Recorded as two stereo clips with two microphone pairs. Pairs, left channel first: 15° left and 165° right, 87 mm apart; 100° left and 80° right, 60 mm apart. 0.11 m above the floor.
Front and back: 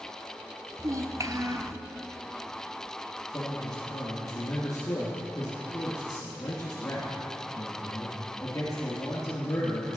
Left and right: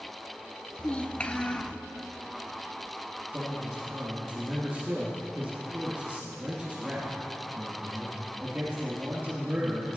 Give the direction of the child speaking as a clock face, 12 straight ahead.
7 o'clock.